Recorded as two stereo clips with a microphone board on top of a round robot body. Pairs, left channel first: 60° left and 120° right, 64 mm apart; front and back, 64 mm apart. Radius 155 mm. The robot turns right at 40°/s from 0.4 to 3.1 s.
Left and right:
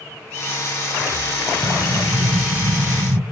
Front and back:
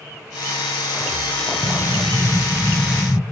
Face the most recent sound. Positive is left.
turn(degrees=-85)